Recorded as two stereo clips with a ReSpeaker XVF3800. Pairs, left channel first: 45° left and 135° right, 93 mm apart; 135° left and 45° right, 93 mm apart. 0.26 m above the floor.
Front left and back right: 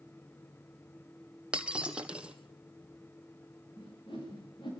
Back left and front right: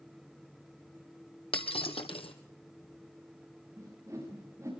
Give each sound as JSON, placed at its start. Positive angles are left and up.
{"t": 1.5, "sound": "breaking glass", "azimuth_deg": 145, "distance_m": 1.7}
{"t": 3.8, "sound": "a whoosh", "azimuth_deg": 15, "distance_m": 8.0}